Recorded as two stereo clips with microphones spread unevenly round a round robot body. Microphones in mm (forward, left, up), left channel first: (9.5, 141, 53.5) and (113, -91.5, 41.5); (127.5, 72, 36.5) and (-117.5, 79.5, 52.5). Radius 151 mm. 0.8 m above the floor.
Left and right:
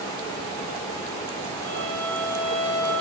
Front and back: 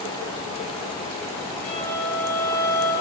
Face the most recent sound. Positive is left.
turn(degrees=-50)